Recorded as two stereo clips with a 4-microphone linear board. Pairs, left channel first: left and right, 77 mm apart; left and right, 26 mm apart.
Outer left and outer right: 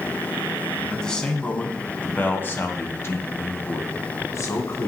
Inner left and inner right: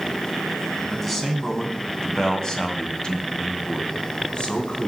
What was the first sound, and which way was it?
A man speaking, 10° left (ahead or behind).